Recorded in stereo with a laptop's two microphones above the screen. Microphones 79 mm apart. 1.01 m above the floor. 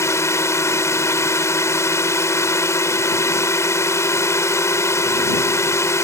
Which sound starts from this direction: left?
A drone, at 0.0 s.